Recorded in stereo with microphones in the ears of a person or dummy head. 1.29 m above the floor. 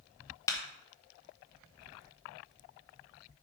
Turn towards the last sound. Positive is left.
turn(degrees=20)  # may be behind; listen again after turning